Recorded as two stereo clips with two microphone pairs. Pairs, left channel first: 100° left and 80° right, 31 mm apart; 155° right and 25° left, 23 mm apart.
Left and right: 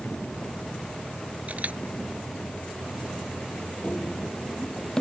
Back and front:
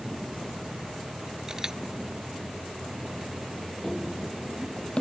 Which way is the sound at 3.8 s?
130° left.